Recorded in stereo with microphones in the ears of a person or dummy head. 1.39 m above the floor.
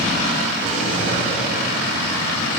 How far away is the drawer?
About 8 m.